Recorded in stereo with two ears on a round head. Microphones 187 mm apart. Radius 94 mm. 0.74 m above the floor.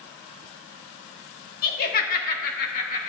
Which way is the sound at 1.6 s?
45° left (ahead or behind).